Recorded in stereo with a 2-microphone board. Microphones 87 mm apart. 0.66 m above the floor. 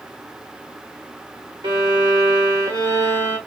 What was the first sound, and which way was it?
A violin, 75° right (ahead or behind).